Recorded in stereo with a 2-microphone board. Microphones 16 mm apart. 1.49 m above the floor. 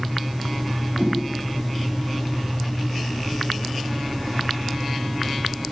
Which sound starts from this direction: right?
A whoosh, at 0.9 s.